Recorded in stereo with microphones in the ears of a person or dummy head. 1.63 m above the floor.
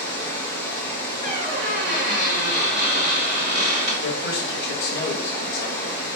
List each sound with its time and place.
0.0 s running water: 15° left (ahead or behind), 0.8 m
1.2 s a squeak: 35° right (ahead or behind), 1.3 m
4.0 s a man speaking: 75° left (ahead or behind), 0.8 m